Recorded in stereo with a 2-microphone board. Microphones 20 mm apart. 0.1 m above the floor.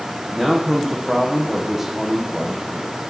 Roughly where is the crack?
I don't hear a crack.